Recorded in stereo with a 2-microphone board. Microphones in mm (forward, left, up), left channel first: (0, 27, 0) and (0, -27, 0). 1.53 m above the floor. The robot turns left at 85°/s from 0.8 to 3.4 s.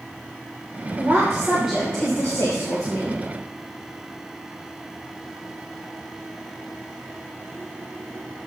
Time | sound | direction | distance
1.0 | a woman speaking | 110° right | 1.4 m